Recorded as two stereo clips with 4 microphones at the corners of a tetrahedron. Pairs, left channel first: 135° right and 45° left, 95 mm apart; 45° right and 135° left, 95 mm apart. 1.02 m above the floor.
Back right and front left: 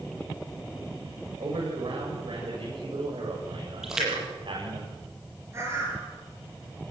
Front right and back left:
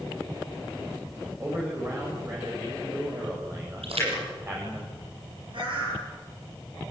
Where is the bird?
105° left, 8.5 m.